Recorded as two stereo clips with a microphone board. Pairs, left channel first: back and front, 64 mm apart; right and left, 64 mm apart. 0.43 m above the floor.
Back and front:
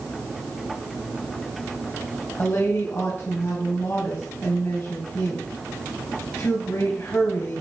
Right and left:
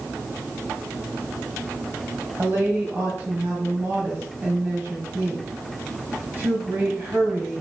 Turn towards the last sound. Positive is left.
turn(degrees=140)